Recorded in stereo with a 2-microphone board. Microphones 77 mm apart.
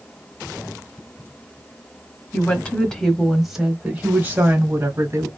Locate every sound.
2.3 s a woman speaking: 20° left (ahead or behind), 1.3 m; by 5.3 s 35° right (ahead or behind), 1.5 m